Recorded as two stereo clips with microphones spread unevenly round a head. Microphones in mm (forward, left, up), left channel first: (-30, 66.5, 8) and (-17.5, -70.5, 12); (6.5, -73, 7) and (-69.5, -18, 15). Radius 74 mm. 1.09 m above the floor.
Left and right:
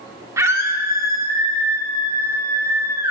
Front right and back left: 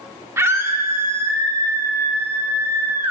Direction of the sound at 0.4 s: 155° right.